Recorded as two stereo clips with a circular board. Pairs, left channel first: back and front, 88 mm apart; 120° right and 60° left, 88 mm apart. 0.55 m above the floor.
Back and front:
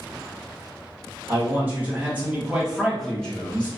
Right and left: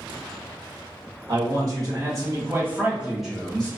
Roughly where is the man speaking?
Ahead left.